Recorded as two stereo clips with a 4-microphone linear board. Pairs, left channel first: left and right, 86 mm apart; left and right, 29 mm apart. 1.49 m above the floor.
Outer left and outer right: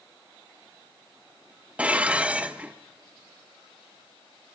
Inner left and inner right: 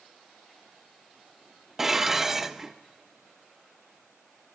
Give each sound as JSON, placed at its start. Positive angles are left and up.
{"t": 1.8, "sound": "dishes clattering", "side_deg": -15, "distance_m": 0.7}